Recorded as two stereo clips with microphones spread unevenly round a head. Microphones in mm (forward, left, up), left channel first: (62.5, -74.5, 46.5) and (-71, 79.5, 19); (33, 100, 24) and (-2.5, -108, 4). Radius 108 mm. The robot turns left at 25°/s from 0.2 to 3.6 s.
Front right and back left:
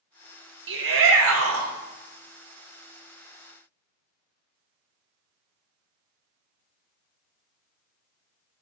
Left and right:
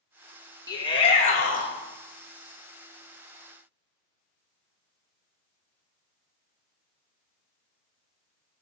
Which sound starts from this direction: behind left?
A shout, at 0.7 s.